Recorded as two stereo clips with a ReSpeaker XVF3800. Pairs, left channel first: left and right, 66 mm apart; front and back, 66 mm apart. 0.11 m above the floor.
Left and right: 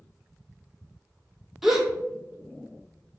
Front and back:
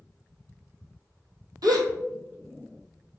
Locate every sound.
1.6 s a gasp: 175° right, 0.7 m